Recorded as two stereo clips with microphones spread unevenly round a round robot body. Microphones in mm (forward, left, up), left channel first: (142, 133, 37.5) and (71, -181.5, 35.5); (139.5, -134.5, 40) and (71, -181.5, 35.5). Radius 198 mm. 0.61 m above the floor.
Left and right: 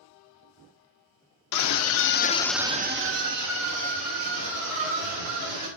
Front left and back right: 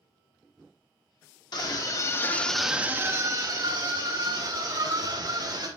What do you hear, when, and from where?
1.5 s a scream: 70° left, 1.3 m; by 5.7 s 110° right, 3.5 m